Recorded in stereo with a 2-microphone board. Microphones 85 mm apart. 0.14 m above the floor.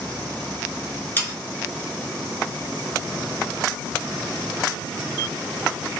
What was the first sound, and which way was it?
Sawing, 25° left (ahead or behind).